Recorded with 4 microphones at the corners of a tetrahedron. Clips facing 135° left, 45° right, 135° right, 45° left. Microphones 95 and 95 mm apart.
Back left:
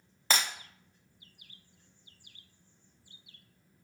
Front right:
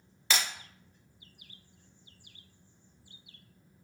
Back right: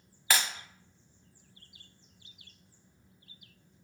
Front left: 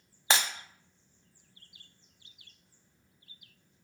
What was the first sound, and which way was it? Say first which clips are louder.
Breaking glass: back left 2 dB, front left 1 dB; 100° left.